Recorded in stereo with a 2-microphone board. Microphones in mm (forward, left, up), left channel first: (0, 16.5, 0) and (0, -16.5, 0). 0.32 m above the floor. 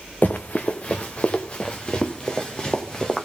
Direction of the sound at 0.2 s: 50° left (ahead or behind).